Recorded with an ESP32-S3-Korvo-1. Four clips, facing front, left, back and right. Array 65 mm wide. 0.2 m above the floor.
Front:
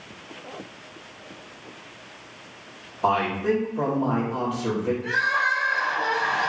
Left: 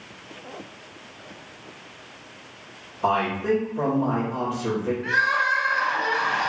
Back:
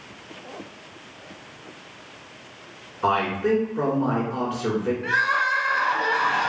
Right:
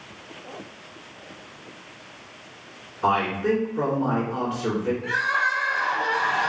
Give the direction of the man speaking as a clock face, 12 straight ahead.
5 o'clock.